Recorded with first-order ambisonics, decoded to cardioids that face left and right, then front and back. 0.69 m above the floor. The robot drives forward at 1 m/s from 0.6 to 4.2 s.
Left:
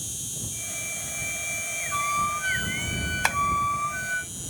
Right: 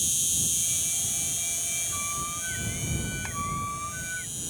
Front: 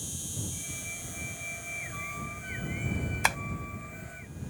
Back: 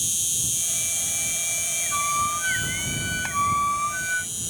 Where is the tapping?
55° left.